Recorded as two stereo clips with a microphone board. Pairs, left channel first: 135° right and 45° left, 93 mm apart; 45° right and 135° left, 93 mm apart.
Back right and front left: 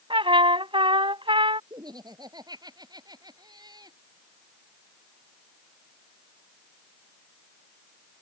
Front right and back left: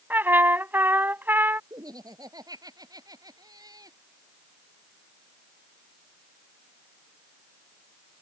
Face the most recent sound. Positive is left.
turn(degrees=90)